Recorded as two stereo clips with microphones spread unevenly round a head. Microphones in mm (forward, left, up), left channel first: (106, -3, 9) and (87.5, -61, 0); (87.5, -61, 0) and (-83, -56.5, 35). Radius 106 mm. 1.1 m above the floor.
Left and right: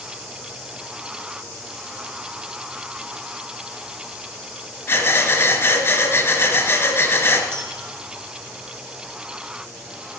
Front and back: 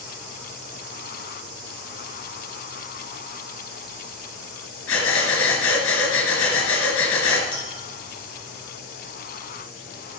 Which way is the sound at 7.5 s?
65° right.